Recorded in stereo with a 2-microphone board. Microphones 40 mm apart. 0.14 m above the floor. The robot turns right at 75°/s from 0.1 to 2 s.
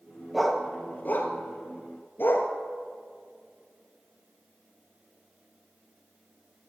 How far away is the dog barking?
About 1.2 m.